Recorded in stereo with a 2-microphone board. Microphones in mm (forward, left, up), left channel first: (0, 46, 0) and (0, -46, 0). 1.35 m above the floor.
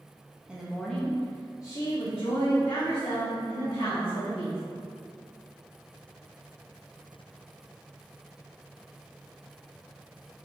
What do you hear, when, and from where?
0.5 s a woman speaking: 10° right (ahead or behind), 0.7 m; by 4.6 s 80° left, 2 m